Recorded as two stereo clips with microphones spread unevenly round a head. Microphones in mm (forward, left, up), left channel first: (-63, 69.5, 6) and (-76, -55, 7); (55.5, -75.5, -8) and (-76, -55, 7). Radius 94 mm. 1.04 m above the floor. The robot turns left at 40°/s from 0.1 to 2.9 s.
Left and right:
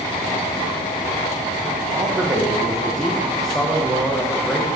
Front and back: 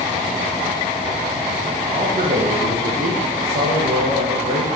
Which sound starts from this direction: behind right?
A man speaking, at 1.9 s.